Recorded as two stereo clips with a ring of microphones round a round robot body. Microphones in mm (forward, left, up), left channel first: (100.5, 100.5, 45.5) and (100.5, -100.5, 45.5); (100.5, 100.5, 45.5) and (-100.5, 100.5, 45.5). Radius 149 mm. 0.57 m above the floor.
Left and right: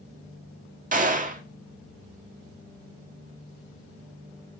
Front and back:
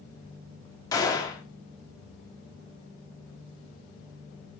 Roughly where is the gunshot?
Ahead right.